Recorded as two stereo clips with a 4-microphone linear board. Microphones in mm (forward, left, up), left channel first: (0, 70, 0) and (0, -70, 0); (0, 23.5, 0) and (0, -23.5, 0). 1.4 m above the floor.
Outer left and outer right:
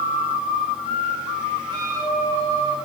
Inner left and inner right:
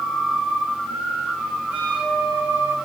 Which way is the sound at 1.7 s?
30° right (ahead or behind).